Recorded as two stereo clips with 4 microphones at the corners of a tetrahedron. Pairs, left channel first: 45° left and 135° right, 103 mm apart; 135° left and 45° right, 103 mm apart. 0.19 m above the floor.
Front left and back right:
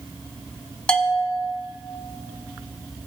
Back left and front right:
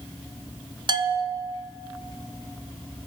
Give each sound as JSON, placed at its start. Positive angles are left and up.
{"t": 0.9, "sound": "a bell", "azimuth_deg": -35, "distance_m": 0.8}